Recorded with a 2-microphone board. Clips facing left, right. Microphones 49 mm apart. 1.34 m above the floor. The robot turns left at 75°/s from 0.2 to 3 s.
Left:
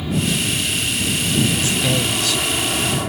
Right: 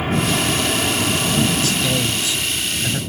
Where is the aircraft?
50° right; by 3.1 s 100° left.